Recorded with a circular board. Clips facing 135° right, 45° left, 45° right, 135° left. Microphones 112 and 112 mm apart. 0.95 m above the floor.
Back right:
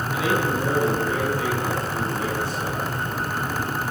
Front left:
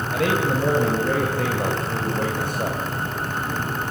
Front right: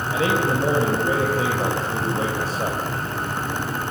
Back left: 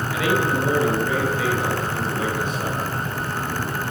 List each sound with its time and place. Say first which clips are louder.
0.1 s a man speaking: front left 2 dB, even; 10° left, 4.5 m